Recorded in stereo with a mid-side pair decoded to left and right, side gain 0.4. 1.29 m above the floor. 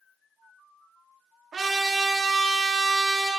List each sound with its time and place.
1.5 s a trumpet: 50° right, 1.2 m